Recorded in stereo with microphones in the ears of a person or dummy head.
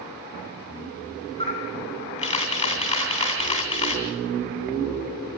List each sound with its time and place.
1.4 s a camera shutter: 35° left (ahead or behind), 2.5 m